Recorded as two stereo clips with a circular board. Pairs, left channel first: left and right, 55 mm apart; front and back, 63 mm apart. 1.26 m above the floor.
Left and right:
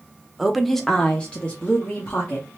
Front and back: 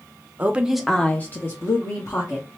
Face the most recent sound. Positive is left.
turn(degrees=25)